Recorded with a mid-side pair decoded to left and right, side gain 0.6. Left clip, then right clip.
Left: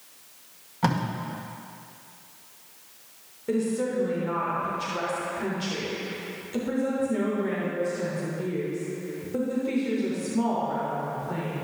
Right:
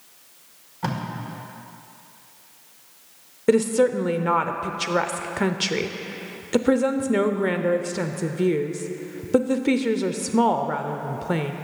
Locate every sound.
0.8 s tape being pulled: 35° left, 1.8 m
3.5 s a woman speaking: 60° right, 0.6 m